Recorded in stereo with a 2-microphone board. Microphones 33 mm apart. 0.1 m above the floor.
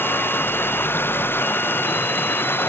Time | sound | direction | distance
0.0 | running water | 90° left | ?